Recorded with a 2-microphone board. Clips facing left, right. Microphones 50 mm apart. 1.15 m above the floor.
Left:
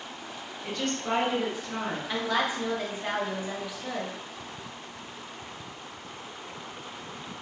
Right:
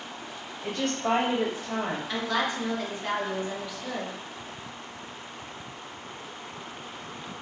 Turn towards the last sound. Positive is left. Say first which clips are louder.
# left 2 dB
turn(degrees=10)  # may be behind; listen again after turning